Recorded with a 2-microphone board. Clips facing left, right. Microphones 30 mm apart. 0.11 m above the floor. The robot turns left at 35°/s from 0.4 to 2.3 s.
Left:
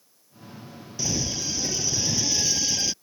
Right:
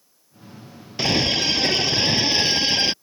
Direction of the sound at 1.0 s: 80° right.